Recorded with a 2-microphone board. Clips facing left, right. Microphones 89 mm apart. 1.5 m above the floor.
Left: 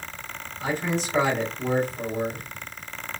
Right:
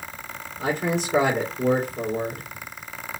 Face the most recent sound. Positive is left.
turn(degrees=-60)  # may be behind; listen again after turning